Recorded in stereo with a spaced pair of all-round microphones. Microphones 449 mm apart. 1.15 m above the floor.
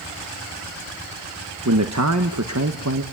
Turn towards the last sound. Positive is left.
turn(degrees=-35)  # may be behind; listen again after turning